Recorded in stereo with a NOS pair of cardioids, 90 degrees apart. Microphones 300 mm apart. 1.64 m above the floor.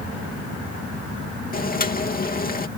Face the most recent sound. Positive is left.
turn(degrees=30)